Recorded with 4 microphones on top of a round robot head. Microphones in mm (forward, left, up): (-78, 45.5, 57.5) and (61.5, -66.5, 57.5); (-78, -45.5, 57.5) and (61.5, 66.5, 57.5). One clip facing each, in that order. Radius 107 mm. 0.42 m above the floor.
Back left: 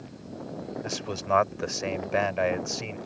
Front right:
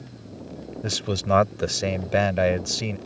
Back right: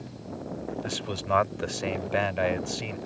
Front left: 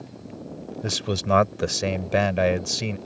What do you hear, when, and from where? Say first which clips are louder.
0.8 s a man speaking: front right 8 dB, front left 5 dB; 5° left